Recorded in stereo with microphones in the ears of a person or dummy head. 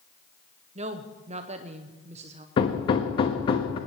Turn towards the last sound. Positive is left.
turn(degrees=35)  # may be behind; listen again after turning